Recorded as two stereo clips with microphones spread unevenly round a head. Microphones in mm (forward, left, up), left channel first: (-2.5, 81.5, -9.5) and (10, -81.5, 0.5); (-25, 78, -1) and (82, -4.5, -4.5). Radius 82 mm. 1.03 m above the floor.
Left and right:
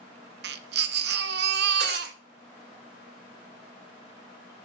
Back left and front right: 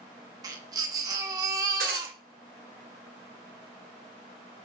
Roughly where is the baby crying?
Right.